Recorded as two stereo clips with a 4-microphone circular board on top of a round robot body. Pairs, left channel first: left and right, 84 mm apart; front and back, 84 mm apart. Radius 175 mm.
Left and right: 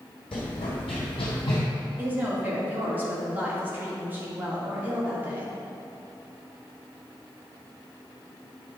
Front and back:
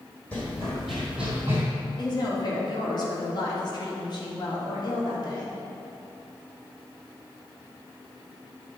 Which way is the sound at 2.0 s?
25° right.